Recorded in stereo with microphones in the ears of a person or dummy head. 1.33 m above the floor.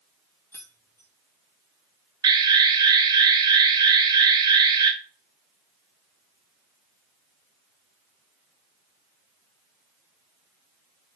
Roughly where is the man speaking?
No man speaking in this recording.